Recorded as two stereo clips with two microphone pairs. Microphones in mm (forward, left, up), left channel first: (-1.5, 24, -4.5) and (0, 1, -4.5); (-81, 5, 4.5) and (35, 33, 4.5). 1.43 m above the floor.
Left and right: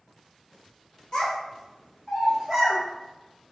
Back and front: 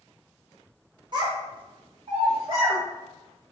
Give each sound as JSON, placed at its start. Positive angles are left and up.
{"t": 1.1, "sound": "a child speaking", "azimuth_deg": 55, "distance_m": 1.1}